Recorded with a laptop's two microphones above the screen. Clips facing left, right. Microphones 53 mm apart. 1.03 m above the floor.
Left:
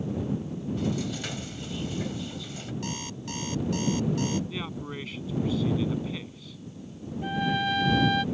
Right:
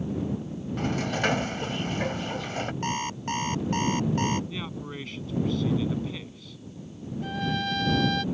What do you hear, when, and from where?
0.8 s a sliding door: 60° right (ahead or behind)
2.8 s an alarm clock: 40° right (ahead or behind)
4.5 s a man speaking: 5° left (ahead or behind)
7.2 s a trumpet: 15° left (ahead or behind)